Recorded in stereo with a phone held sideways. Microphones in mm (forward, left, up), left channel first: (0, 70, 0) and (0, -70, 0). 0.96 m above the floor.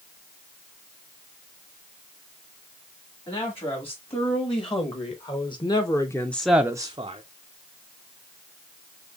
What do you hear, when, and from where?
3.3 s a man speaking: 45° left (ahead or behind), 2.5 m; by 7.2 s 40° right (ahead or behind), 0.7 m